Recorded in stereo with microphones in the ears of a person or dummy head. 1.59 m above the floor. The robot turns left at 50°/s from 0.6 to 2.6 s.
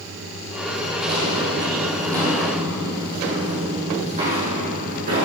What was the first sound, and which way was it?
Footsteps, 25° right (ahead or behind).